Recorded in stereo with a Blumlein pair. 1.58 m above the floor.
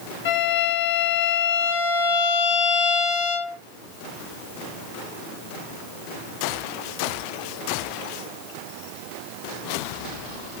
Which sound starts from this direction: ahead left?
A violin, at 0.2 s.